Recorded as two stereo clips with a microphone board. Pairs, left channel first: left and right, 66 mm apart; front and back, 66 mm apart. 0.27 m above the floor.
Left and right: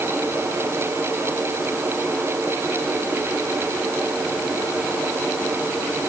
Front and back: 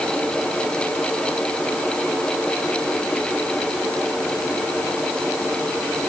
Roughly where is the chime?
I don't hear a chime.